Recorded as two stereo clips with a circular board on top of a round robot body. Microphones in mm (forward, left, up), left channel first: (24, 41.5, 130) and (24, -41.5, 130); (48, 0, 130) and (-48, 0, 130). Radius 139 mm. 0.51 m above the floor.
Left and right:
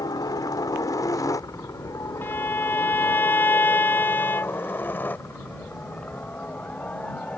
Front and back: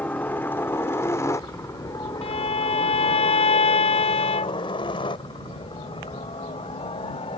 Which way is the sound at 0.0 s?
70° left.